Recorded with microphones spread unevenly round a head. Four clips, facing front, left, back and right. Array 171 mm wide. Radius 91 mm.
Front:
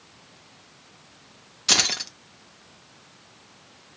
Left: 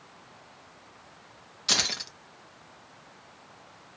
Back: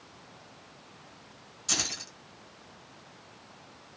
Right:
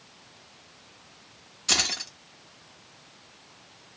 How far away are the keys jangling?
About 1.0 m.